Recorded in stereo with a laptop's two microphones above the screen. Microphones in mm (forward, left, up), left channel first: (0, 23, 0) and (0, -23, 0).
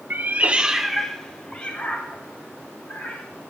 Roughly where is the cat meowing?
Right.